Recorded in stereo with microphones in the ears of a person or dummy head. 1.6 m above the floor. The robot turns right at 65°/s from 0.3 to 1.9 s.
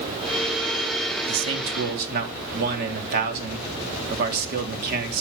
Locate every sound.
1.3 s a man speaking: 100° right, 3 m; by 5.2 s 60° right, 3 m